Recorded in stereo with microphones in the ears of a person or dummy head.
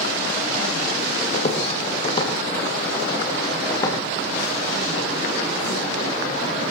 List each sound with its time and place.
1.3 s footsteps: 40° left (ahead or behind), 3.5 m; by 4.0 s 25° left (ahead or behind), 4.5 m